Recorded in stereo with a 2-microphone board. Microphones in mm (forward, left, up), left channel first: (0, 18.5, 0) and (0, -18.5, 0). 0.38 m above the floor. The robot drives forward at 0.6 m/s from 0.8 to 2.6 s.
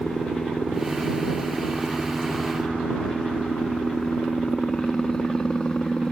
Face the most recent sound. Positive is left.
turn(degrees=20)  # may be behind; listen again after turning